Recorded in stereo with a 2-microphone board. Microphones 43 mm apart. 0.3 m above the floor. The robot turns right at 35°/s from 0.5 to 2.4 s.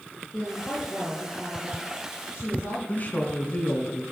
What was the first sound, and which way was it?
A woman speaking, 5° left.